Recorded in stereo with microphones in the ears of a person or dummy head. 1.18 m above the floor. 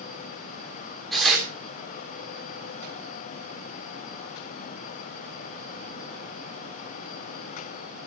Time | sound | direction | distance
1.1 | tearing paper | centre (ahead or behind) | 2.5 m